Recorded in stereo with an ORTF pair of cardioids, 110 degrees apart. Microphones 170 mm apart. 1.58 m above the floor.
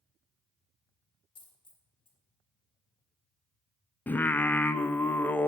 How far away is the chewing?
I don't hear chewing.